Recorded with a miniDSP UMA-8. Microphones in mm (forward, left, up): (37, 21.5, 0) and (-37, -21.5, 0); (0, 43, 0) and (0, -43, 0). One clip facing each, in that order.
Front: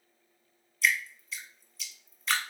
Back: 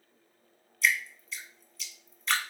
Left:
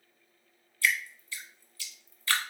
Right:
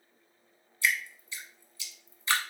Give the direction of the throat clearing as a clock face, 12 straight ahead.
I don't hear throat clearing.